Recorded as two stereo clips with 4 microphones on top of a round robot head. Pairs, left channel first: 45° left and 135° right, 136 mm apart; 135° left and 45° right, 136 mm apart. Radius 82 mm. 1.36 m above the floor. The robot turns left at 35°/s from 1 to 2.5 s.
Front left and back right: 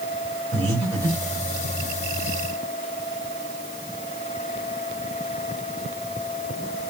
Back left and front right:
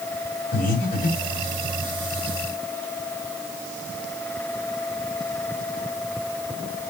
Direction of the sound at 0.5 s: 160° left.